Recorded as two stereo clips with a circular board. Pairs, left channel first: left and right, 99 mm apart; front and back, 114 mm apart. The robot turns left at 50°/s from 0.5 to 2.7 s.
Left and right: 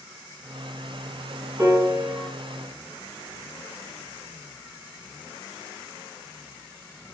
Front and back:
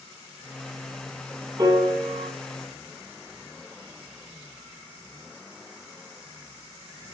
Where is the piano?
135° right, 2.5 m; by 2.3 s 170° right, 2.5 m.